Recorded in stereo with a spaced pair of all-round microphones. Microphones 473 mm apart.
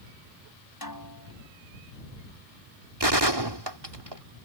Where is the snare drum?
45° left (ahead or behind).